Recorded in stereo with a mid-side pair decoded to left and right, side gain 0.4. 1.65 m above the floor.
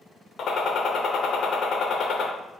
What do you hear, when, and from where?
0.4 s a gunshot: 65° left, 0.8 m